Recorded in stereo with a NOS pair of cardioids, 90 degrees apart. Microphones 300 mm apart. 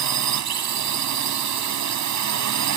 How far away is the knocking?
I don't hear knocking.